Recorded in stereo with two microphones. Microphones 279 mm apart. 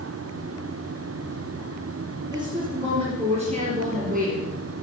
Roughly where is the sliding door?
No sliding door in this recording.